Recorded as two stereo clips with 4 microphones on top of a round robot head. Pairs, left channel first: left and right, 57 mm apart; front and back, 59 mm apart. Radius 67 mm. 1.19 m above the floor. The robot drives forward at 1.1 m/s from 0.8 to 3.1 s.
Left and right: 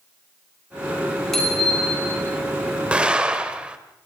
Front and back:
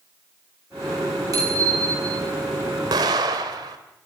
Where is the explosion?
160° right, 1.8 m; by 3.8 s 165° right, 2 m.